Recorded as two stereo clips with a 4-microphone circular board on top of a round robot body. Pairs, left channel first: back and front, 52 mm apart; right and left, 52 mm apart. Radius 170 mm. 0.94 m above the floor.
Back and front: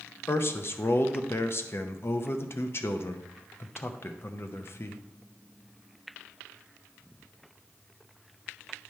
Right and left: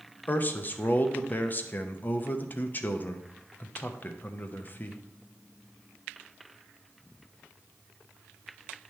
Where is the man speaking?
140° right, 0.8 m.